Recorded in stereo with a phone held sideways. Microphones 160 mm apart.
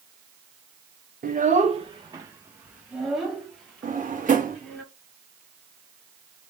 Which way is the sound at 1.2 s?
60° right (ahead or behind).